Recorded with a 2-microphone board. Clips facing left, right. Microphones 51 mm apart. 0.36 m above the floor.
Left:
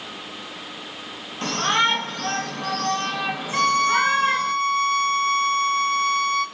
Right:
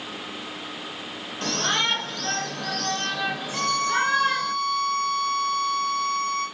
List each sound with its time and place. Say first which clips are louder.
1.4 s a shout: left 5 dB; 35° left (ahead or behind), 1.2 m
3.5 s a violin: left 6 dB; 65° left (ahead or behind), 0.7 m